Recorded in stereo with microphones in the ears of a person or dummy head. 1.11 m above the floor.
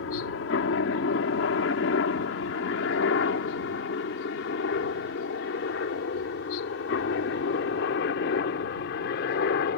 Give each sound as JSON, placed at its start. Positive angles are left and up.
{"t": 0.0, "sound": "a helicopter", "side_deg": 65}